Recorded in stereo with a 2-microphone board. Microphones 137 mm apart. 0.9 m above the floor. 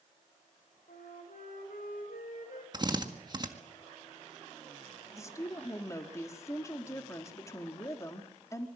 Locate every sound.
0.9 s a flute: 80° left, 4.5 m
2.7 s a drill: 35° right (ahead or behind), 1.7 m
5.2 s a woman speaking: 20° left (ahead or behind), 2 m